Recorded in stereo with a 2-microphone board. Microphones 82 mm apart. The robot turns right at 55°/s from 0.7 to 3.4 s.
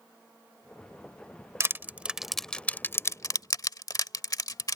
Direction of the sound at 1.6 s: 35° right (ahead or behind).